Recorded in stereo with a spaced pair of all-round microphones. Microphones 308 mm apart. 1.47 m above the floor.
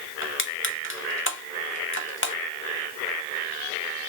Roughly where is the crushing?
Left.